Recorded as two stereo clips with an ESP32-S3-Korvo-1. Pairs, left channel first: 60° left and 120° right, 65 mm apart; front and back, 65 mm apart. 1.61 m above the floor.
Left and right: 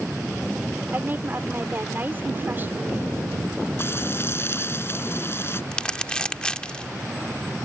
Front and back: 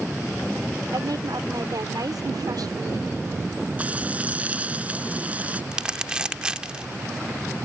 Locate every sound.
0.9 s a woman speaking: 175° right
3.8 s frying: 115° left
5.7 s crumpling: 120° left